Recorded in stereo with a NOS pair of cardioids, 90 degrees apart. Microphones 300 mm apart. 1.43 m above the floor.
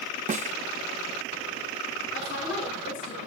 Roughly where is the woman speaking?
Ahead left.